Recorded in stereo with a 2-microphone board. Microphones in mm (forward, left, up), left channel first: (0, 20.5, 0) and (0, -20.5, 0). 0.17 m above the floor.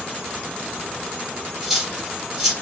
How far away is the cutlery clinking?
About 2 m.